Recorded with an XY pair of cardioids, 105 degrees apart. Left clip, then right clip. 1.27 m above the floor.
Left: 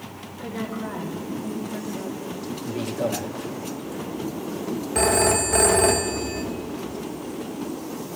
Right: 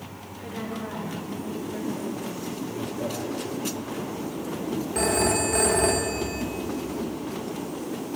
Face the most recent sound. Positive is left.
turn(degrees=35)